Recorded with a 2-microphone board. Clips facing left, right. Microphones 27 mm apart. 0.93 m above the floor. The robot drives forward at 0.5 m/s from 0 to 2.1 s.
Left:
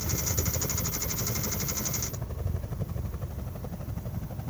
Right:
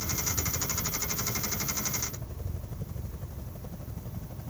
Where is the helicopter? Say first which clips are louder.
Left 1 dB; 70° left (ahead or behind); by 4.5 s 30° left (ahead or behind).